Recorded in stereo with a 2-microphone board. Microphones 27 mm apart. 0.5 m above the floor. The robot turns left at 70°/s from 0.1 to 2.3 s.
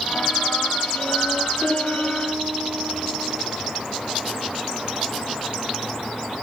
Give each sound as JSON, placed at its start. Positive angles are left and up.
{"t": 1.6, "sound": "a piano", "azimuth_deg": -30, "distance_m": 8.0}